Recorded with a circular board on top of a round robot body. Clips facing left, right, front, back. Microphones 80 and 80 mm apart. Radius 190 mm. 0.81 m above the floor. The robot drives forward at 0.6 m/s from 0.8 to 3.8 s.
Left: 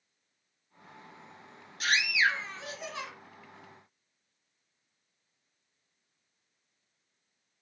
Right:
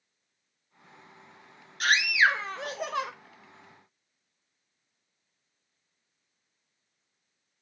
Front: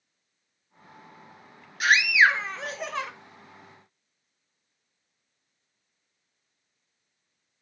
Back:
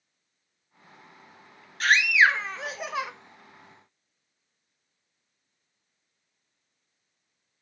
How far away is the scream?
About 2.0 m.